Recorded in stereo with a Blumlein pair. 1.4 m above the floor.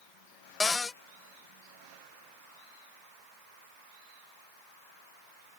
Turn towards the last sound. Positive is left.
turn(degrees=15)